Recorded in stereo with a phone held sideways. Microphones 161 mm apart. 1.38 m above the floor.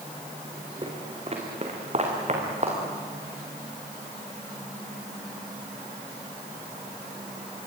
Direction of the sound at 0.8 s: 35° right (ahead or behind).